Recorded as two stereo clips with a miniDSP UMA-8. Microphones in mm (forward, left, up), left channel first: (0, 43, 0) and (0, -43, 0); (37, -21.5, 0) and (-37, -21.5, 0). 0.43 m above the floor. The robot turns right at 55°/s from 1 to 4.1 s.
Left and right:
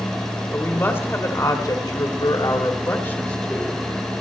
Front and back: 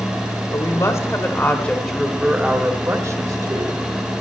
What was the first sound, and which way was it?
A woman speaking, 35° left.